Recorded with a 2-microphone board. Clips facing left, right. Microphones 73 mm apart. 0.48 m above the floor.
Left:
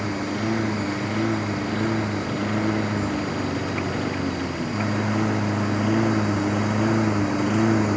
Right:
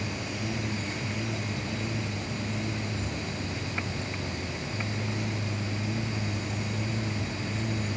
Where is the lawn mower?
55° left (ahead or behind); by 8.0 s 80° left.